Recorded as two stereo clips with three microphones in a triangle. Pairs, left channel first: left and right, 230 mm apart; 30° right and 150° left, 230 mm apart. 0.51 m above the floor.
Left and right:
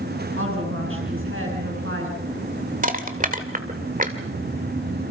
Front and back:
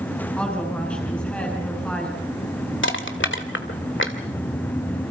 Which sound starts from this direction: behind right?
A woman speaking, at 0.4 s.